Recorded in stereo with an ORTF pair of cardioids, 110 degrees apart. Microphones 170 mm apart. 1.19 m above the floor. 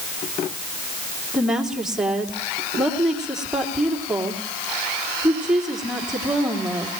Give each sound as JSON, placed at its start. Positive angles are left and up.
{"t": 1.3, "sound": "a woman speaking", "azimuth_deg": -5, "distance_m": 2.5}